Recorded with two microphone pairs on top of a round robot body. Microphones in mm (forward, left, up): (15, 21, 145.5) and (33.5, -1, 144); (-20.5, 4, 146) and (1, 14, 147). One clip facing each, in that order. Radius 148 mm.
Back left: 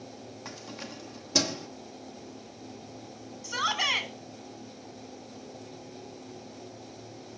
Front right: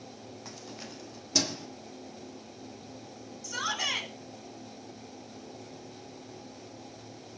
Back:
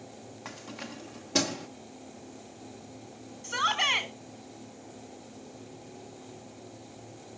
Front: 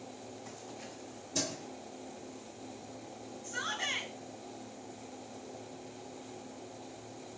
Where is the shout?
160° right, 4.5 m.